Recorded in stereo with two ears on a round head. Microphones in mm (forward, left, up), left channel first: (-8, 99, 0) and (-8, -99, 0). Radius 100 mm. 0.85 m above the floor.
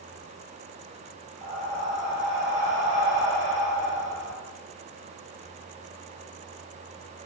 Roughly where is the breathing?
Right.